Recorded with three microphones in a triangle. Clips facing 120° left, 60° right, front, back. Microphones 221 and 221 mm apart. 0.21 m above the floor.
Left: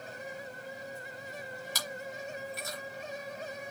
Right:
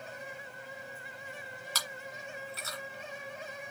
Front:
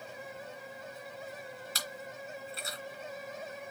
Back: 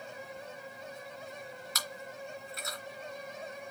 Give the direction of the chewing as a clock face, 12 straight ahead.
10 o'clock.